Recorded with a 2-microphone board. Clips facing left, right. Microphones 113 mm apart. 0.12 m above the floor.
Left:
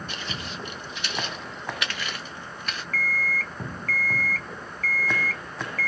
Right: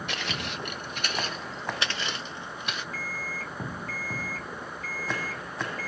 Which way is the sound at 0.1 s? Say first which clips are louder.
Right 1 dB; 80° right.